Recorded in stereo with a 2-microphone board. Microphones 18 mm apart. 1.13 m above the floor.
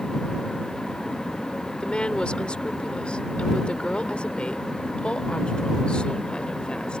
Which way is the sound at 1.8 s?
65° left (ahead or behind).